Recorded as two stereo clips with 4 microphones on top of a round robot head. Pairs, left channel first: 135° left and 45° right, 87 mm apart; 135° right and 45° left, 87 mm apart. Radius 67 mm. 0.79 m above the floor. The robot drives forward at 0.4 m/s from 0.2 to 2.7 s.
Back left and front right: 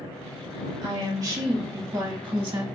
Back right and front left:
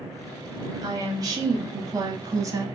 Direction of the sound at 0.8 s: 10° left.